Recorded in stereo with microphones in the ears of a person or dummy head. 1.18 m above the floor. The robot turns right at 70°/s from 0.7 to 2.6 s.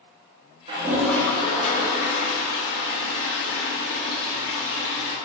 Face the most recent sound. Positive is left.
turn(degrees=110)